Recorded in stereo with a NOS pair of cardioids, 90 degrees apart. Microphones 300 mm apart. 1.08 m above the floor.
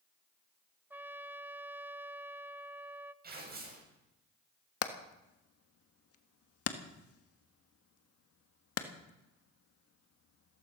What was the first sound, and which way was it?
A trumpet, 5° right.